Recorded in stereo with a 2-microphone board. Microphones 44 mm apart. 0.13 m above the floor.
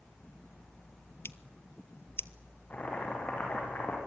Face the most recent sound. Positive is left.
turn(degrees=35)  # may be behind; listen again after turning